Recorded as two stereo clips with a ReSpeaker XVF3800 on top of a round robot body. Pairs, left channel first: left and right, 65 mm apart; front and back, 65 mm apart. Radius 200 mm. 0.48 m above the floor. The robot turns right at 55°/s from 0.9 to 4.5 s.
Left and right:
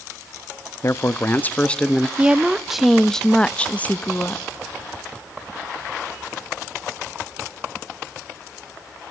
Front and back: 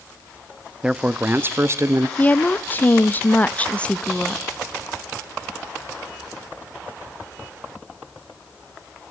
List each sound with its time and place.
0.8 s a man speaking: 110° left, 0.9 m; by 2.1 s 175° left, 0.9 m
2.2 s a woman speaking: 40° right, 0.9 m; by 4.5 s 85° left, 0.9 m